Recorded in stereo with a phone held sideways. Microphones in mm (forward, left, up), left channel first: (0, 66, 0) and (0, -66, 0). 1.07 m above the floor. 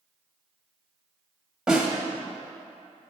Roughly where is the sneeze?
No sneeze in this recording.